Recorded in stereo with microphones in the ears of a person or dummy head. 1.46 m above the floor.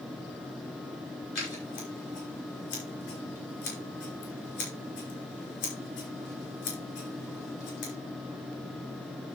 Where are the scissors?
60° left (ahead or behind), 5.5 m.